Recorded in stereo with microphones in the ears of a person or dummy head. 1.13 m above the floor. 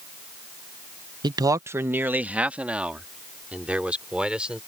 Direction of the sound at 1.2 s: 25° right (ahead or behind).